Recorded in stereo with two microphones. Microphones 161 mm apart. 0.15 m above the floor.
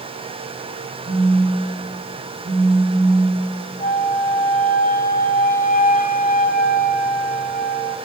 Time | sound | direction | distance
1.1 | a phone buzzing | 15° right (ahead or behind) | 4.5 m
3.8 | a flute | 70° left (ahead or behind) | 0.9 m